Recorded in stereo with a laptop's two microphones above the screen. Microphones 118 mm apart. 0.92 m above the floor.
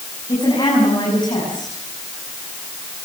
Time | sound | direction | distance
0.3 | a woman speaking | 35° left (ahead or behind) | 7.5 m